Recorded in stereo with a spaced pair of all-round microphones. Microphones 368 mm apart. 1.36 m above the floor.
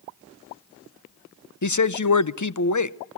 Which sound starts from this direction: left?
A man speaking, at 1.6 s.